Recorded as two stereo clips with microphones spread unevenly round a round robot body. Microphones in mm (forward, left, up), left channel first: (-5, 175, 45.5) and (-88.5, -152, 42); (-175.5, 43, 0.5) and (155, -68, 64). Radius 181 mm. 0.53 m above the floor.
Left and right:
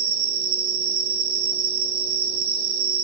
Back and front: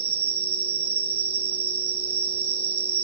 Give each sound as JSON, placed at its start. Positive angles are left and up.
{"t": 0.0, "sound": "an insect", "azimuth_deg": -70, "distance_m": 4.5}